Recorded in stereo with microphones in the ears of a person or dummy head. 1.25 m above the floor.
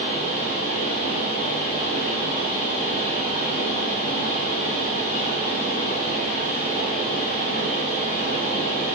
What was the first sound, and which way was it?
A fan, 50° left (ahead or behind).